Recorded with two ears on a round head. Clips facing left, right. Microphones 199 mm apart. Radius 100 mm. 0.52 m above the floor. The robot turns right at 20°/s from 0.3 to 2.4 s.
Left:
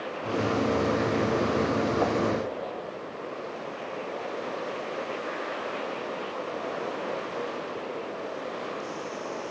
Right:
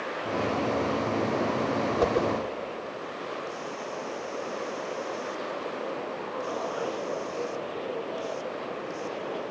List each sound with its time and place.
2.0 s a whoosh: 40° right (ahead or behind), 1.1 m; by 2.3 s 45° right (ahead or behind), 1.1 m